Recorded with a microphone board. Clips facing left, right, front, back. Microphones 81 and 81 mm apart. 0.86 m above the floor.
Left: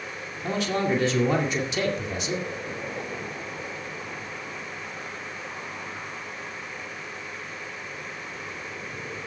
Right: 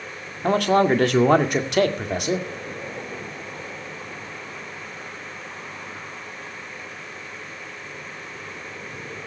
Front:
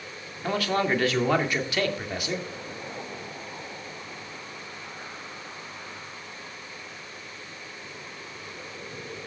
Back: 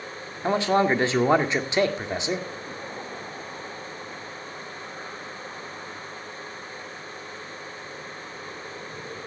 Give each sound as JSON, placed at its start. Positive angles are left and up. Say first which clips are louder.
{"t": 0.4, "sound": "a man speaking", "louder": "right 8 dB, back 4 dB", "azimuth_deg": -115, "distance_m": 1.9}